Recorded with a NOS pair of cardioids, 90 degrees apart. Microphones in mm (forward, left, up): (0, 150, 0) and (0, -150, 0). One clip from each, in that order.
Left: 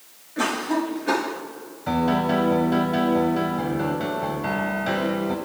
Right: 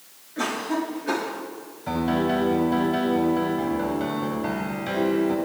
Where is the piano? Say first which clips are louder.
Left 2 dB; 20° left, 5 m.